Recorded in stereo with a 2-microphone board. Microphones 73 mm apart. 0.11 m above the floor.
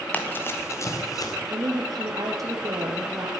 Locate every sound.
0.1 s running footsteps: 25° left (ahead or behind), 3 m; by 1.4 s 55° left (ahead or behind), 3 m
1.5 s a woman speaking: 55° right (ahead or behind), 3 m